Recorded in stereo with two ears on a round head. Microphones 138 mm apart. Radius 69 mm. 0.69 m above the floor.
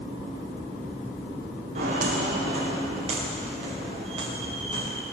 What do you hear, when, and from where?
1.8 s footsteps: 50° right (ahead or behind), 6 m; by 5.0 s 30° right (ahead or behind), 5.5 m